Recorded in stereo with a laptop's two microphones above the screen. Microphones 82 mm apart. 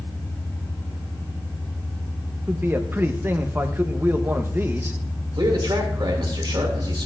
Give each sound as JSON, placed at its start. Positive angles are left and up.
{"t": 2.5, "sound": "a man speaking", "side_deg": -25, "distance_m": 0.7}
{"t": 5.4, "sound": "a man speaking", "side_deg": -65, "distance_m": 2.0}